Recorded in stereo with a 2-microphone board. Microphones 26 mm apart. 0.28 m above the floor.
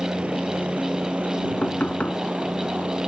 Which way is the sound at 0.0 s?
55° right (ahead or behind).